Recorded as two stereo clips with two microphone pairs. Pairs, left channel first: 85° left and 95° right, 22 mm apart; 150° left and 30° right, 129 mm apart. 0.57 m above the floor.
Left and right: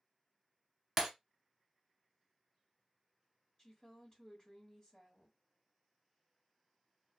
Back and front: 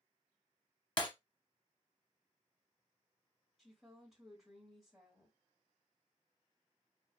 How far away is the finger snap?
I don't hear a finger snap.